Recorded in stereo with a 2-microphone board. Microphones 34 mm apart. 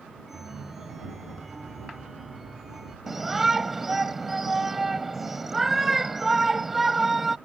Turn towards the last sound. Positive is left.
turn(degrees=-10)  # may be behind; listen again after turning